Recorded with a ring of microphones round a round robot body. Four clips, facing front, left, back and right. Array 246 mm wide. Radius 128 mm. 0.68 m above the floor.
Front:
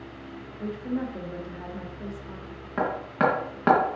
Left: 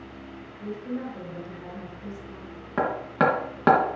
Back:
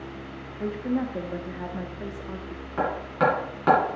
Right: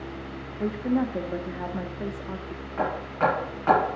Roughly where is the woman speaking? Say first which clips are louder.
Right 8 dB, back 3 dB; right.